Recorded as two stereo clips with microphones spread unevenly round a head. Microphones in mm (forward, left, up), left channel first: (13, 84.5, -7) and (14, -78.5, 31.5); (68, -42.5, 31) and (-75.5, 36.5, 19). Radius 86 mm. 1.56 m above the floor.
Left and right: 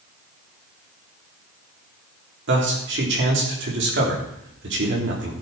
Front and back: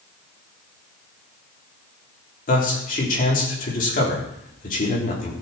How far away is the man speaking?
About 3.5 m.